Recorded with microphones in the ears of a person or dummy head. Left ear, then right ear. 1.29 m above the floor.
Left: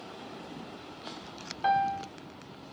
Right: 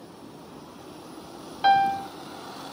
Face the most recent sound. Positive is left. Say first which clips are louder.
# right 7 dB
turn(degrees=-80)